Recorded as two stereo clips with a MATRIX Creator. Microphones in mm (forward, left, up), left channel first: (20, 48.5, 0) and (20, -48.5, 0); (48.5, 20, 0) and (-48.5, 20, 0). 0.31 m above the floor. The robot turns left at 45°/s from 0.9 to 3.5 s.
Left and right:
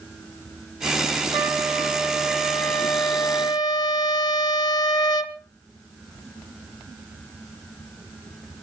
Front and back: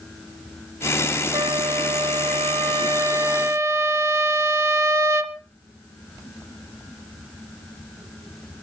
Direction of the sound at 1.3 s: 140° right.